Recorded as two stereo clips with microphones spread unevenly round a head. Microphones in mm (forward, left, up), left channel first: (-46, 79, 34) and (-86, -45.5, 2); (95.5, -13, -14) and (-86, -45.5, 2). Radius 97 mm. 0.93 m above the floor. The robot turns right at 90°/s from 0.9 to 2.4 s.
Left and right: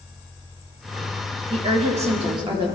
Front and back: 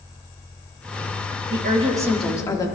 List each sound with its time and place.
1.5 s a woman speaking: 140° right, 1.8 m; by 2.7 s 60° right, 1.8 m